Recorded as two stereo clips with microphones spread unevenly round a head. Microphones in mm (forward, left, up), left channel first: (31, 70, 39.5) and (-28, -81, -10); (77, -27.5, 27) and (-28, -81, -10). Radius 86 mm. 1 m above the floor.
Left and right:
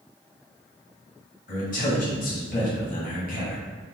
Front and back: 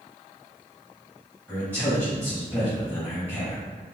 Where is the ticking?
I don't hear ticking.